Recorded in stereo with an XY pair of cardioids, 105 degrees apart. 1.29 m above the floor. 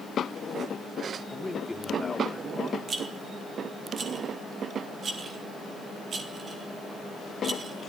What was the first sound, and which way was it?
A man speaking, 10° left.